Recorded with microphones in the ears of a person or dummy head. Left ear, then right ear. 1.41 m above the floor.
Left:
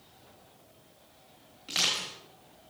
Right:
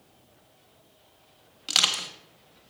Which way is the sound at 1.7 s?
30° right (ahead or behind).